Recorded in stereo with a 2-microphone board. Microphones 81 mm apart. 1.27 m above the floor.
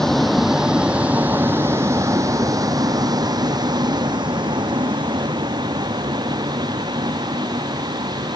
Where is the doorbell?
I don't hear a doorbell.